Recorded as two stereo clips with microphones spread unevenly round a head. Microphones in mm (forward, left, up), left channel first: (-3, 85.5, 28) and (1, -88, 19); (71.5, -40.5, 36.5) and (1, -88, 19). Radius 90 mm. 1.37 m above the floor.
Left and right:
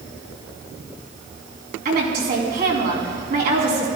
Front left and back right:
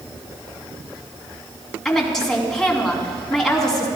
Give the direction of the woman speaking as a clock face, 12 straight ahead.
2 o'clock.